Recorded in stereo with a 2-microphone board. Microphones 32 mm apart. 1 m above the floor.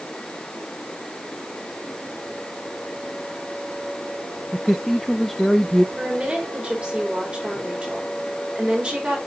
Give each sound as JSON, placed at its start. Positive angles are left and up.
{"t": 4.5, "sound": "a man speaking", "side_deg": 5, "distance_m": 0.5}
{"t": 6.0, "sound": "a woman speaking", "side_deg": -35, "distance_m": 4.0}